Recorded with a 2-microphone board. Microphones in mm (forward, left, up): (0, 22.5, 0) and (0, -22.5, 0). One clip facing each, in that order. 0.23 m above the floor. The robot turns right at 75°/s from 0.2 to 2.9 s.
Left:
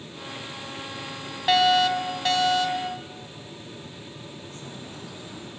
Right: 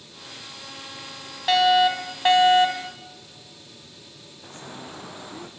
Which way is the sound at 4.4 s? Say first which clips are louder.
Even; 45° right (ahead or behind).